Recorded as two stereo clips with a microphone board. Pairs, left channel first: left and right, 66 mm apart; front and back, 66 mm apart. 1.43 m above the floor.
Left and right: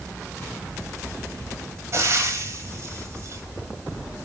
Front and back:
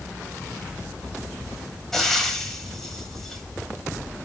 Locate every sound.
1.9 s frying: 85° right, 1.8 m